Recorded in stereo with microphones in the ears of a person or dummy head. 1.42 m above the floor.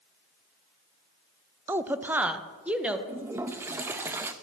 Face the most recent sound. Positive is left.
turn(degrees=-15)  # may be behind; listen again after turning